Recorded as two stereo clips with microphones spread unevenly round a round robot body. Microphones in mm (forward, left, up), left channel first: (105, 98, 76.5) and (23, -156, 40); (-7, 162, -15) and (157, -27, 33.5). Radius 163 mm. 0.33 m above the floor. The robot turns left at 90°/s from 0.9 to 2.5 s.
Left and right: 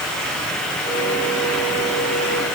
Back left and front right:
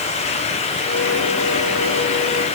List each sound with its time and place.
Only background noise.